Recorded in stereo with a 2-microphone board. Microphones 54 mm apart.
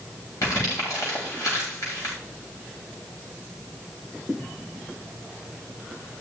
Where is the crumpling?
75° left (ahead or behind), 7.5 m.